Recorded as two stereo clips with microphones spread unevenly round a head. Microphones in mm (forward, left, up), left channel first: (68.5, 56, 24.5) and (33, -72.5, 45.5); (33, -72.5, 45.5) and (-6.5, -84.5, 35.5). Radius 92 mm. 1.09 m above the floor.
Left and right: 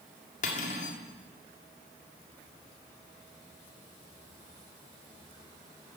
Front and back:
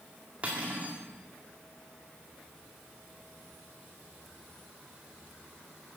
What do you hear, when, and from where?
0.4 s cutlery clinking: 120° left, 1.6 m